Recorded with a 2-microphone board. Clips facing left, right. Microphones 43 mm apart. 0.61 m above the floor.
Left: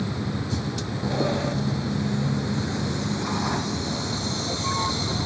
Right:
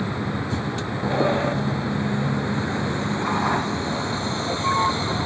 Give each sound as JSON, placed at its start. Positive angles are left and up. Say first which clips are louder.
{"t": 0.0, "sound": "a vehicle", "louder": "right 3 dB", "side_deg": -25}